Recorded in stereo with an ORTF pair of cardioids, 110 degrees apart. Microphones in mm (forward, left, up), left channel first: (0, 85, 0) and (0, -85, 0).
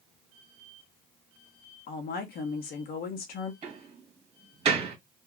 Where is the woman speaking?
65° left, 1.0 m.